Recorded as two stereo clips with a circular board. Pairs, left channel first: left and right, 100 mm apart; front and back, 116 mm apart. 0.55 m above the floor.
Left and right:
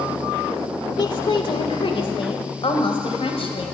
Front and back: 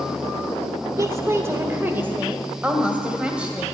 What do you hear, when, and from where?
1.0 s a woman speaking: 120° left, 1.5 m; by 3.6 s 100° left, 3 m